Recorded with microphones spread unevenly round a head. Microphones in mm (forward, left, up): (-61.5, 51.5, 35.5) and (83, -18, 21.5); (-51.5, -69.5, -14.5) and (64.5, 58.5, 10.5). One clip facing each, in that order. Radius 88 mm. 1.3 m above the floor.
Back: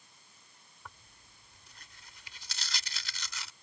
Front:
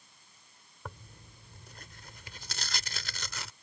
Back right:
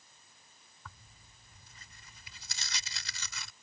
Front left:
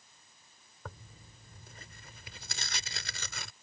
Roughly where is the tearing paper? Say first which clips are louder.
Front 8 dB, front left 7 dB; ahead.